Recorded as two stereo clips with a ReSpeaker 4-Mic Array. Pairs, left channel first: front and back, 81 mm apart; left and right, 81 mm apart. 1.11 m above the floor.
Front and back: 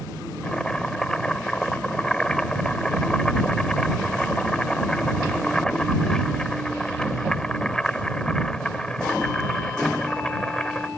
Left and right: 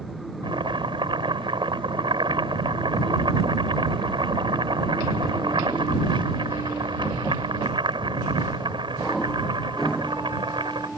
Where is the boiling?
80° right.